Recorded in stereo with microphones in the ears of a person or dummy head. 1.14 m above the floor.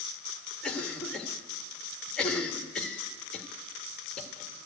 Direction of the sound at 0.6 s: 5° left (ahead or behind).